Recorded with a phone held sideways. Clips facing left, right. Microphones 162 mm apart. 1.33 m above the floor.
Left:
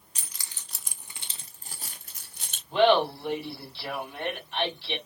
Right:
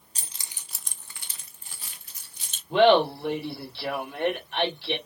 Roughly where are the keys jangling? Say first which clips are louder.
Right 1 dB; right.